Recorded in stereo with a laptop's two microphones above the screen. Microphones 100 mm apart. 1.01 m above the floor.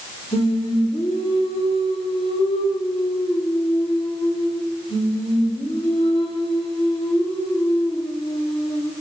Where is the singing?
75° left (ahead or behind), 1.9 m.